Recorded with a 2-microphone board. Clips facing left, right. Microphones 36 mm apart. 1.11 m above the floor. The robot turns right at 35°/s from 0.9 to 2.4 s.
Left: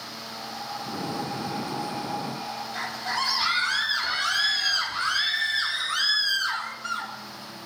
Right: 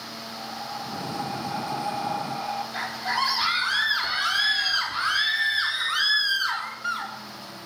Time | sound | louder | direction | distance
0.3 | breathing | right 1 dB | 170° left | 4 m
2.7 | a scream | right 1 dB | 10° right (ahead or behind) | 3.5 m